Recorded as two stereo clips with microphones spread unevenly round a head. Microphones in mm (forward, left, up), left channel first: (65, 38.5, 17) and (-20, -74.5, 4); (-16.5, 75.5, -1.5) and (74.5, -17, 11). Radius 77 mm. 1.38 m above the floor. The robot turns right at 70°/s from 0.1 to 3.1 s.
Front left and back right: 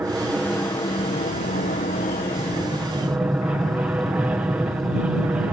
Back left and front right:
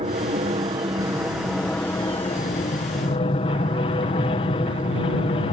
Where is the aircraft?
55° right; by 5.5 s 155° left.